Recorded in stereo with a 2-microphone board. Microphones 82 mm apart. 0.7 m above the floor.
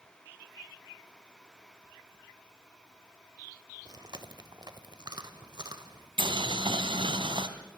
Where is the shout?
I don't hear a shout.